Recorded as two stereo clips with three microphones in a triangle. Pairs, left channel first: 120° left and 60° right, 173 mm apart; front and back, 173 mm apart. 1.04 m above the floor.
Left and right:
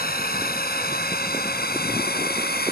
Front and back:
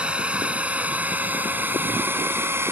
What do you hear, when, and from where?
0.0 s a drone: 95° left; by 2.7 s 105° left